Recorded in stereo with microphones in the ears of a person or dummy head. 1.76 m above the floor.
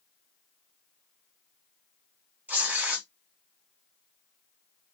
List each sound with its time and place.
2.5 s tearing paper: 5° right (ahead or behind), 0.7 m